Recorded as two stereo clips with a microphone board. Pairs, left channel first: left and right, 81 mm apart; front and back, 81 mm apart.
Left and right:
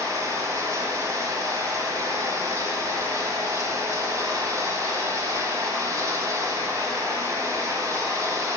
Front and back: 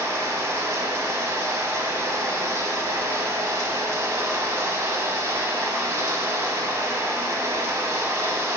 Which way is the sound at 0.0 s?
130° right.